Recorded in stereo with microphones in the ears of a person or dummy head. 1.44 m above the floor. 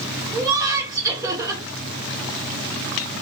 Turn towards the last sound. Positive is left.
turn(degrees=-15)  # may be behind; listen again after turning